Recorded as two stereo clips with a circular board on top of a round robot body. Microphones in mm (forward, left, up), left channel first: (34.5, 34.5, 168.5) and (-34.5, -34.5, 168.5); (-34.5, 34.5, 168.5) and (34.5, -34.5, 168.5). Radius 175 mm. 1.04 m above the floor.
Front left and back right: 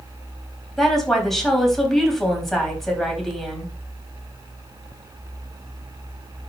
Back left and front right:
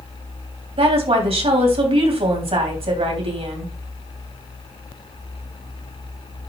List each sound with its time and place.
0.8 s a woman speaking: 40° right, 3 m